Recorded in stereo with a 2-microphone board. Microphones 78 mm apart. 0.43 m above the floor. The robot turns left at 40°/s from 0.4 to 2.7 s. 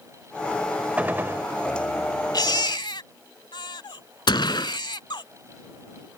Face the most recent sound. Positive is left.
turn(degrees=75)  # may be behind; listen again after turning